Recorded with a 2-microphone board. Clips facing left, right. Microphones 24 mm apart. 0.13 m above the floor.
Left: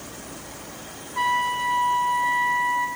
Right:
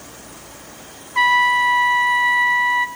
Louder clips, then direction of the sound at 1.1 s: Right 8 dB; 50° right (ahead or behind).